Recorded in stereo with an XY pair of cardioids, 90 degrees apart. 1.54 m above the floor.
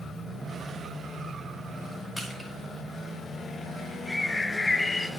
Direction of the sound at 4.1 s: 25° left.